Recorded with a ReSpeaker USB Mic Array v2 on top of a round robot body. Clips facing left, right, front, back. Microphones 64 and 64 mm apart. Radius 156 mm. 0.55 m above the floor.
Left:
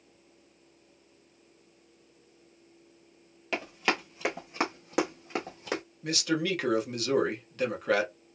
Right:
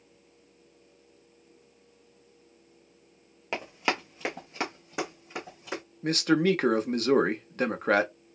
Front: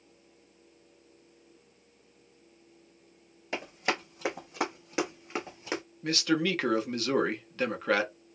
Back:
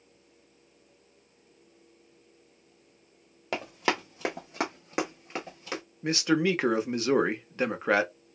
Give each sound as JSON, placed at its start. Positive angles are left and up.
{"t": 3.5, "sound": "running footsteps", "azimuth_deg": -160, "distance_m": 1.1}
{"t": 6.0, "sound": "a man speaking", "azimuth_deg": -120, "distance_m": 1.0}